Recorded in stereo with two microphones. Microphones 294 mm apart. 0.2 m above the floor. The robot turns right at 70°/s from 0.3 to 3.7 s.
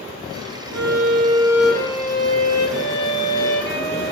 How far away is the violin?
About 0.6 m.